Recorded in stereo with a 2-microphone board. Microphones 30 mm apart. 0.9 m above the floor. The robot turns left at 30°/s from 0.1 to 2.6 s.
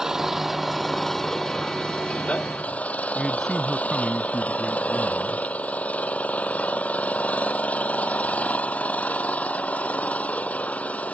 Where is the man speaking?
5° left (ahead or behind).